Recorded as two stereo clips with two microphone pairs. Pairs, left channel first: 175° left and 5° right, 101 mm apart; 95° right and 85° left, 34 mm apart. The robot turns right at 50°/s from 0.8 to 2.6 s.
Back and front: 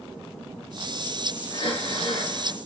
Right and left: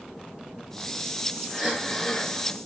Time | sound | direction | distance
1.5 | breathing | 170° left | 3 m